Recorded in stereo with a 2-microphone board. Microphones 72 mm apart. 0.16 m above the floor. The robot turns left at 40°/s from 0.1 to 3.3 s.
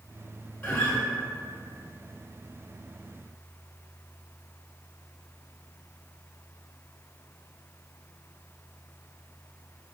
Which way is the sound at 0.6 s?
35° left (ahead or behind).